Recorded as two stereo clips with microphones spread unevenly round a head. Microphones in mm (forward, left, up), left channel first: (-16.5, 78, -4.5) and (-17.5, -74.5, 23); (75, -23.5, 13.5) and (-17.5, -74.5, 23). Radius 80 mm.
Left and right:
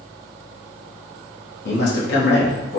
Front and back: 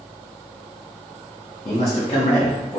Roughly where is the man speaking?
Left.